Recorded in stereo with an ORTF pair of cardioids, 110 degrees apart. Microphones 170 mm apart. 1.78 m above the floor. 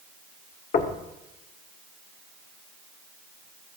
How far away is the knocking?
About 1.8 m.